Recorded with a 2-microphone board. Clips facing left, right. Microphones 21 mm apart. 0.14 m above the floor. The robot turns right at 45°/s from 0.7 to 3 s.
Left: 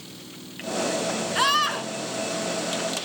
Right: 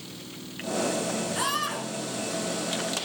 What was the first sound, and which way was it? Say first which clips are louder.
A scream: left 10 dB; 35° left (ahead or behind).